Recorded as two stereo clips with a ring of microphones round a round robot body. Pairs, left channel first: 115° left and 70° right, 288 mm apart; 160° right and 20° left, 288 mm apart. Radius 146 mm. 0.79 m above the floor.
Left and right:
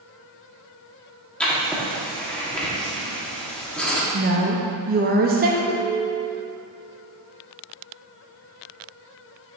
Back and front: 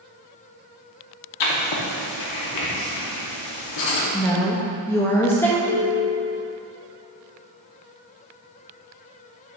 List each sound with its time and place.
1.4 s writing: 160° right, 1.4 m
4.1 s a woman speaking: 80° right, 0.7 m
5.7 s a ringtone: 175° right, 0.7 m